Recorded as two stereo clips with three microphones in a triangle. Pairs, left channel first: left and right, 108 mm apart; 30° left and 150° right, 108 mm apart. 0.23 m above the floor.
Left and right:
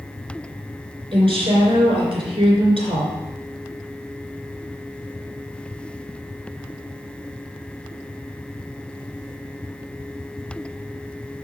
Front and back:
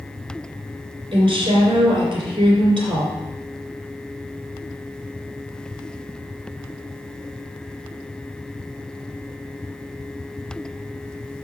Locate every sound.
1.1 s a woman speaking: 115° right, 3 m